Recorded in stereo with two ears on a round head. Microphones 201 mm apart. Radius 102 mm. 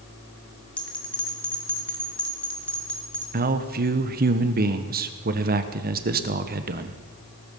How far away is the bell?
About 2 m.